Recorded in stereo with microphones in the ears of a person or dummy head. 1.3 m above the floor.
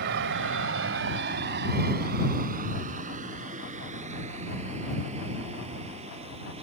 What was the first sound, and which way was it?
A vehicle, 65° right (ahead or behind).